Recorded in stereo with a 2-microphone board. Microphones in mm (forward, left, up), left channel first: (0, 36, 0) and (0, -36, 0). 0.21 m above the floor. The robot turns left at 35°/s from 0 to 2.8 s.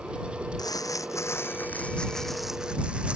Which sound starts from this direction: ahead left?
Crumpling, at 0.6 s.